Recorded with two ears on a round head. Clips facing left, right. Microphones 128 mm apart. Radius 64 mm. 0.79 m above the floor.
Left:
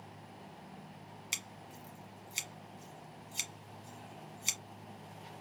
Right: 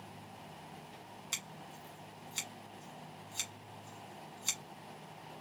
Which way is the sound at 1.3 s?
20° left (ahead or behind).